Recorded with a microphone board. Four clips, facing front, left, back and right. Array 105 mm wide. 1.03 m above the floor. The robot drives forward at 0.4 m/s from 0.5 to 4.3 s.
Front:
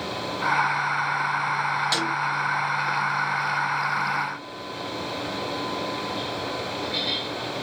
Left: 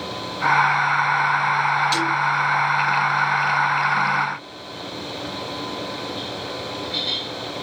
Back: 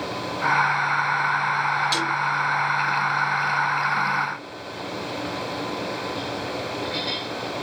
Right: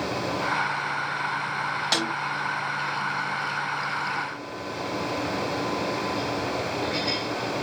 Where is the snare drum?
75° right, 7.5 m; by 2.1 s 80° right, 7.5 m.